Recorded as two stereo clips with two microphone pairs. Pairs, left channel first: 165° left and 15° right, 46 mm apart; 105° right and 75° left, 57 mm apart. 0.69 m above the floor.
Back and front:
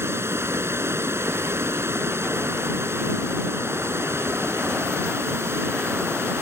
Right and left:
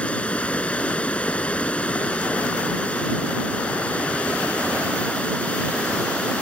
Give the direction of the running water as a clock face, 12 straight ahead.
1 o'clock.